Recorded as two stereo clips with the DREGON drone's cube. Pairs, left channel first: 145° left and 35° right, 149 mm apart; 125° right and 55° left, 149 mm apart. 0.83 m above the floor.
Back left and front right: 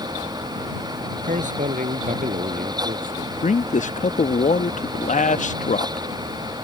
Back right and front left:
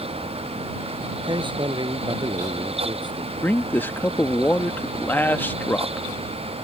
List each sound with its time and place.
1.2 s a man speaking: straight ahead; by 3.3 s 5° right
3.4 s a man speaking: 160° left